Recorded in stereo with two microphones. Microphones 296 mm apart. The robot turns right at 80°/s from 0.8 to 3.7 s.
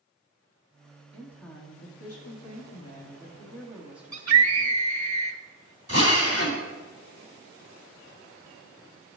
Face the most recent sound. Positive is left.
turn(degrees=50)  # may be behind; listen again after turning